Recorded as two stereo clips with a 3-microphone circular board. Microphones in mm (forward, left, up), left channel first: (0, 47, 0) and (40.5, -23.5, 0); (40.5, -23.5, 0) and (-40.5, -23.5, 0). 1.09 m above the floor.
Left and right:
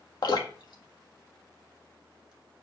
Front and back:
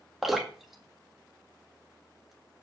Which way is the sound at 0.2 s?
90° left.